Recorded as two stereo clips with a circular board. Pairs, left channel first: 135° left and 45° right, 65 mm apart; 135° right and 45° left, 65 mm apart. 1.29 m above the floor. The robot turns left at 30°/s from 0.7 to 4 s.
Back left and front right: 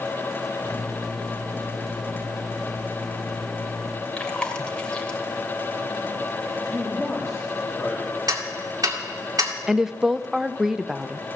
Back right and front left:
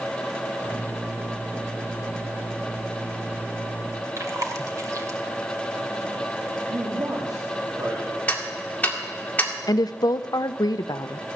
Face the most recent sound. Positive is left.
turn(degrees=-130)